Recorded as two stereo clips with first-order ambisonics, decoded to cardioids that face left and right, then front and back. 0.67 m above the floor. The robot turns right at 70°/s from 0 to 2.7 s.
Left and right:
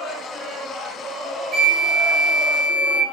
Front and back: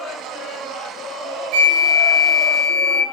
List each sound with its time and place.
1.5 s a flute: 155° right, 0.8 m; by 3.0 s 70° right, 0.8 m